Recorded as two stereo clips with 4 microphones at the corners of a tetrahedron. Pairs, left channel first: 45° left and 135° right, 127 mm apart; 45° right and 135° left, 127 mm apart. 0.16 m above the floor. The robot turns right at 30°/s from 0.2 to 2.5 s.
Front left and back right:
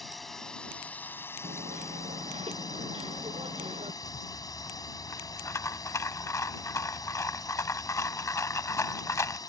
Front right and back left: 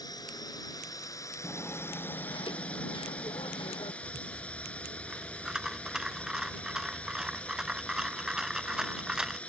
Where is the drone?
45° right; by 9.5 s 25° left.